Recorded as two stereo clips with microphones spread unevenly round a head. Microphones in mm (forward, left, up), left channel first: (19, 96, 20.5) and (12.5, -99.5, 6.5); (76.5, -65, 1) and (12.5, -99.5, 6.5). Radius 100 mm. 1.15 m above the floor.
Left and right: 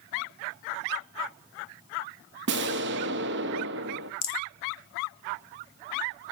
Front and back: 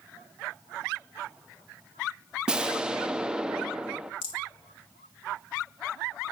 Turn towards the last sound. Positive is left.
turn(degrees=65)